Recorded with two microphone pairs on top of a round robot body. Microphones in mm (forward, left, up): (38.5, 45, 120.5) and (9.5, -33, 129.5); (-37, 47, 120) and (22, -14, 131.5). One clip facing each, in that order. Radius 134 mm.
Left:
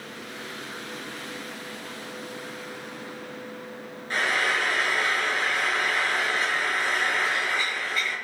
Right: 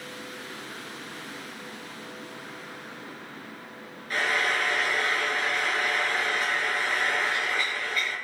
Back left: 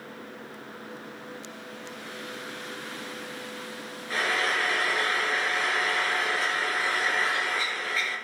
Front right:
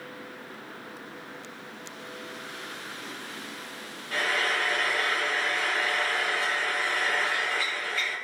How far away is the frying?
About 5.5 m.